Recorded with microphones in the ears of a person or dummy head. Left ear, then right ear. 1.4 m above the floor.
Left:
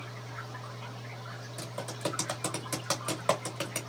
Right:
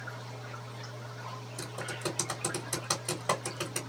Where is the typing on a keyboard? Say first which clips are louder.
Left 1 dB; 15° left (ahead or behind), 1.2 m.